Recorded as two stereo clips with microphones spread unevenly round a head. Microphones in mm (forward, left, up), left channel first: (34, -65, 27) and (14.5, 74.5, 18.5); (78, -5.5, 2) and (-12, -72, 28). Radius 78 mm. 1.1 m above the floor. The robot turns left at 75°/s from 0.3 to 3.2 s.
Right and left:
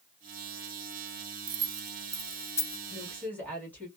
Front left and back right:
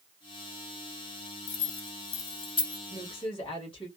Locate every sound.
1.5 s keys jangling: 75° left, 0.6 m; by 2.8 s 25° right, 0.6 m
2.9 s a woman speaking: 20° left, 1.8 m; by 3.9 s 5° right, 1.8 m